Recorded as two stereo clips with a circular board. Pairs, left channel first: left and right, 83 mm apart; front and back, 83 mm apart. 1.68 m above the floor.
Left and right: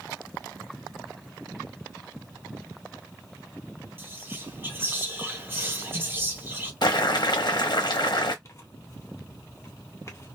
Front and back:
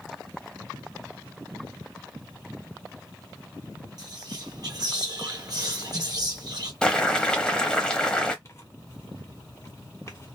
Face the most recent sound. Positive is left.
turn(degrees=45)